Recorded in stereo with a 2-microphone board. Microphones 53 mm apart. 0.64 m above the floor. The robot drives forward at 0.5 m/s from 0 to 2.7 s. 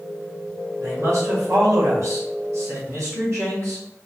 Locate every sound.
0.8 s a man speaking: 65° right (ahead or behind), 2.5 m; by 3.8 s 55° right (ahead or behind), 3 m